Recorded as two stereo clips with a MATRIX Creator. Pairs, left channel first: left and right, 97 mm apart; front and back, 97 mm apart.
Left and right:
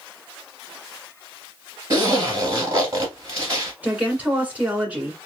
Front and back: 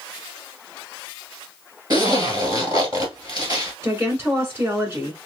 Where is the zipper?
140° right, 1.6 m.